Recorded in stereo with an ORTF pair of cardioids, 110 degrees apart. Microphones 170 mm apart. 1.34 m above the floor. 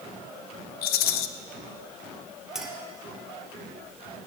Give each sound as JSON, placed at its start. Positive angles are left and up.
{"t": 0.8, "sound": "a rattle", "azimuth_deg": 65, "distance_m": 0.6}
{"t": 2.5, "sound": "a clink", "azimuth_deg": -5, "distance_m": 1.8}